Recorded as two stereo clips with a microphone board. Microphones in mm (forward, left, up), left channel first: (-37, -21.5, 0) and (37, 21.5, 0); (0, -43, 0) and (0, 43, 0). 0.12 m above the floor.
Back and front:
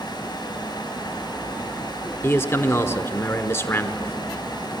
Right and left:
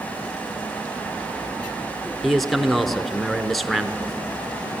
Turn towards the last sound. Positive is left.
turn(degrees=180)